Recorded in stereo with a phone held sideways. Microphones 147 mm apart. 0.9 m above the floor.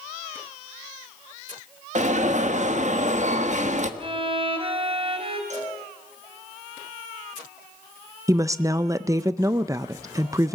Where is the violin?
40° right (ahead or behind), 2 m.